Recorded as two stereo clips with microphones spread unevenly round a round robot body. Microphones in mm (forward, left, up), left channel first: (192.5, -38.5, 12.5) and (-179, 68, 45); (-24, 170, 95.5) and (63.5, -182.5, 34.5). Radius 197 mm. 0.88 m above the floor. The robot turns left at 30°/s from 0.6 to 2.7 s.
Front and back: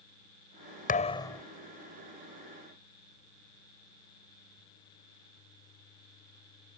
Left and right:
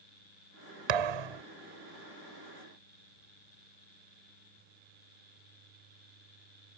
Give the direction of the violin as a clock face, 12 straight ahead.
No violin in this recording.